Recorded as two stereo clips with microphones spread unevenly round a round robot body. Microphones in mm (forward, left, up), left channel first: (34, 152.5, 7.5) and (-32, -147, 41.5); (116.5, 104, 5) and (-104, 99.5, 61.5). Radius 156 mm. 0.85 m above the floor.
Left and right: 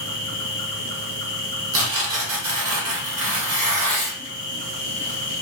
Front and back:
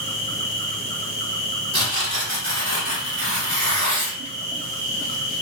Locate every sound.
0.0 s an insect: 140° left, 1.2 m
1.7 s tearing paper: 120° right, 1.2 m